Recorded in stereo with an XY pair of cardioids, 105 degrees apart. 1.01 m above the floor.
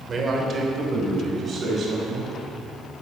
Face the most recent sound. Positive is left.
turn(degrees=-45)